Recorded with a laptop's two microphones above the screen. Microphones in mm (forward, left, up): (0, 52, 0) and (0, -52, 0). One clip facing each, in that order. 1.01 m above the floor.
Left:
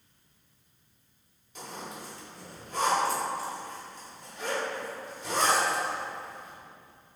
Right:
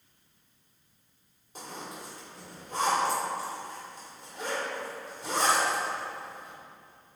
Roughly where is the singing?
I don't hear singing.